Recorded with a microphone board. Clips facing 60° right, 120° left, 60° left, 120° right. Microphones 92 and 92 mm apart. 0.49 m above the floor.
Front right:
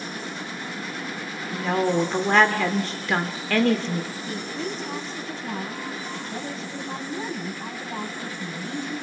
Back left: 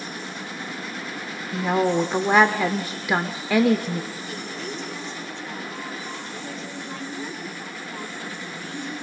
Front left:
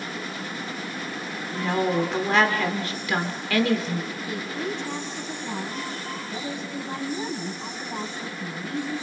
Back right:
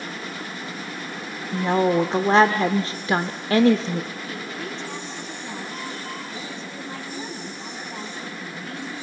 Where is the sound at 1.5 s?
165° right, 0.9 m.